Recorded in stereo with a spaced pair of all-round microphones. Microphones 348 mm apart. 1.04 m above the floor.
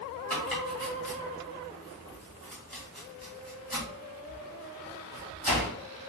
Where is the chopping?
5° left (ahead or behind), 2 m.